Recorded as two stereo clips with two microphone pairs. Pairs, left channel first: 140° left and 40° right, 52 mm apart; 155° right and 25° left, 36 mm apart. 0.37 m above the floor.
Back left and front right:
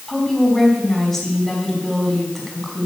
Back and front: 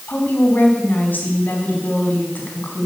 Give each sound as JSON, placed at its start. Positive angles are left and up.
{"t": 0.1, "sound": "a woman speaking", "azimuth_deg": -135, "distance_m": 3.5}